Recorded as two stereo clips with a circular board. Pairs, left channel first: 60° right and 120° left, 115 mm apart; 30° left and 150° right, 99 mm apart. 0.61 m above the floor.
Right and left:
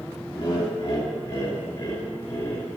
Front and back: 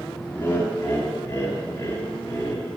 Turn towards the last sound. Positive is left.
turn(degrees=-30)